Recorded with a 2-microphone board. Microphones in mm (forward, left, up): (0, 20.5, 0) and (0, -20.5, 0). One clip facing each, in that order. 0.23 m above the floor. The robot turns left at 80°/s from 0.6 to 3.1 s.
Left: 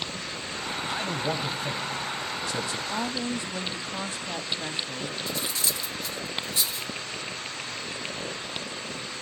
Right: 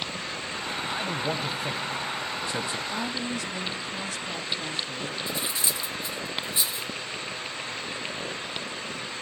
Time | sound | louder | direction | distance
0.9 | a man speaking | left 1 dB | 15° left (ahead or behind) | 1.0 m
2.9 | a woman speaking | left 1 dB | 30° left (ahead or behind) | 1.1 m
5.3 | cutlery clinking | even | 25° right (ahead or behind) | 2 m